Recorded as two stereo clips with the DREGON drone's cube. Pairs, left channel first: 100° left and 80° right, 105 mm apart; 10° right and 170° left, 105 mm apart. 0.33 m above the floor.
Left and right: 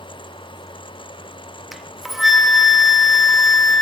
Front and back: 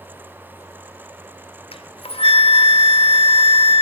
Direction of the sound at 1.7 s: 10° left.